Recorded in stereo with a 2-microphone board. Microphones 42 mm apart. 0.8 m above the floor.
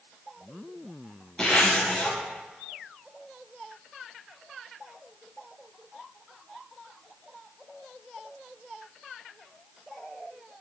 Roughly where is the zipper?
Centre.